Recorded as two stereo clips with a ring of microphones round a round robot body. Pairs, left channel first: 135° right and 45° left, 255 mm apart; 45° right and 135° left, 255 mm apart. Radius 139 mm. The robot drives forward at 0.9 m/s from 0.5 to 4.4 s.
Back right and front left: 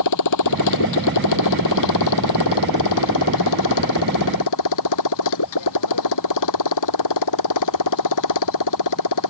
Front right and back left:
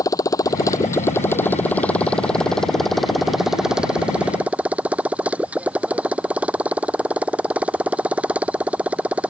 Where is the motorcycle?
120° right; by 9.3 s 140° right.